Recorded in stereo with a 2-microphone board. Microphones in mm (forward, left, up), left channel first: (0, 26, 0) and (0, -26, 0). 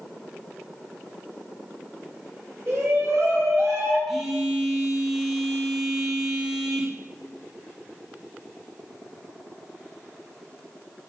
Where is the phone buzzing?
Centre (ahead or behind), 2 m.